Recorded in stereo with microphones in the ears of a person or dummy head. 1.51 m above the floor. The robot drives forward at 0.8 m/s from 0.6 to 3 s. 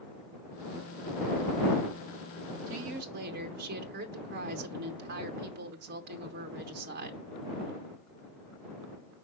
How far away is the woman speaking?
About 0.6 m.